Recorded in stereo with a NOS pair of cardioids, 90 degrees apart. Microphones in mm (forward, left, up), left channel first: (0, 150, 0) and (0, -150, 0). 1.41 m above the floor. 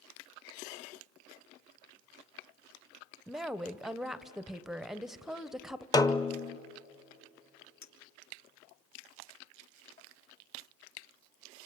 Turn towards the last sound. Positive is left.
turn(degrees=65)